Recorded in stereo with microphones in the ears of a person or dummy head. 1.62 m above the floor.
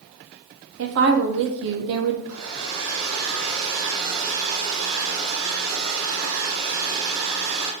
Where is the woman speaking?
60° right (ahead or behind), 0.7 m.